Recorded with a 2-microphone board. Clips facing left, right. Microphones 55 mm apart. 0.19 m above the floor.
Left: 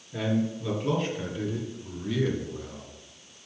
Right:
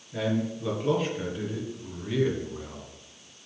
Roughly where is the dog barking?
I don't hear a dog barking.